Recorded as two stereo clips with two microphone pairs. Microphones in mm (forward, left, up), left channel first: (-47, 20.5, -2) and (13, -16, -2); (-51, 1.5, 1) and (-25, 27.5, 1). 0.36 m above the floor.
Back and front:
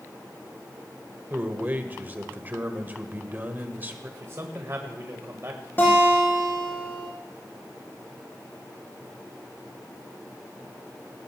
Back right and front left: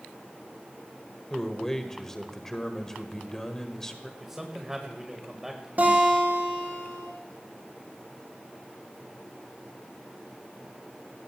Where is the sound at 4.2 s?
30° right, 1.7 m.